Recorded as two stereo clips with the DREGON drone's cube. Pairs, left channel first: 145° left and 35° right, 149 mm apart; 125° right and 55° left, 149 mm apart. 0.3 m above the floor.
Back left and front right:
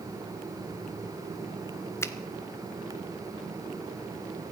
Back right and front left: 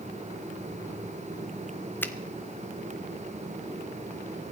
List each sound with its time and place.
2.0 s a finger snap: 175° right, 0.7 m